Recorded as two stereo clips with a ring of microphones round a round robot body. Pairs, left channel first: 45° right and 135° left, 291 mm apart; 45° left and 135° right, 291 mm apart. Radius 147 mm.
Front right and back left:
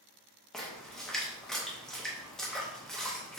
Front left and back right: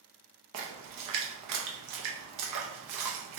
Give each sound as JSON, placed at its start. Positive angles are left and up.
{"t": 0.5, "sound": "a splash", "azimuth_deg": -135, "distance_m": 0.8}